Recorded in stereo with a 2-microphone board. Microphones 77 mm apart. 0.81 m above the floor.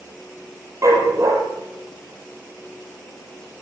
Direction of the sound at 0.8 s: 40° right (ahead or behind).